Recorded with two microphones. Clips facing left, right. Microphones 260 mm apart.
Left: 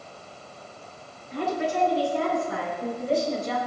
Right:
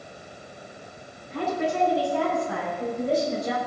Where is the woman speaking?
85° right, 8 m; by 3.6 s 80° right, 5.5 m.